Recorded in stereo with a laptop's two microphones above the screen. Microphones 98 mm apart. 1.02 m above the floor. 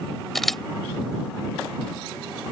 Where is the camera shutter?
5° left (ahead or behind).